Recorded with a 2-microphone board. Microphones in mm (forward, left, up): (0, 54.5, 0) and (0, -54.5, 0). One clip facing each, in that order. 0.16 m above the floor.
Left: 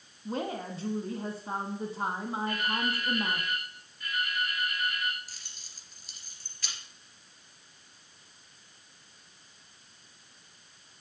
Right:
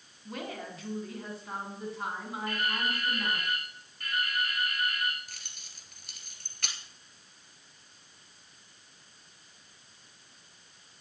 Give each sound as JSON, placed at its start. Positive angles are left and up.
{"t": 0.2, "sound": "a woman speaking", "side_deg": 30, "distance_m": 1.4}
{"t": 2.5, "sound": "dripping", "side_deg": -65, "distance_m": 6.0}
{"t": 5.3, "sound": "keys jangling", "side_deg": -65, "distance_m": 2.0}